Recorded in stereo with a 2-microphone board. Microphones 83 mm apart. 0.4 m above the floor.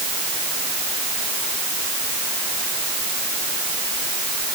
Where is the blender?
No blender in this recording.